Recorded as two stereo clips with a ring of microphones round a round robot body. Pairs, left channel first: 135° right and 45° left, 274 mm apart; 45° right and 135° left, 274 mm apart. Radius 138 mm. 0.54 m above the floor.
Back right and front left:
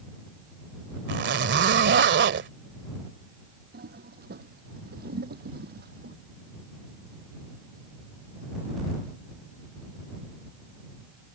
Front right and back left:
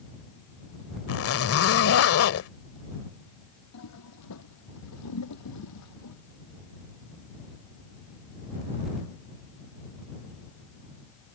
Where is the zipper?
5° right.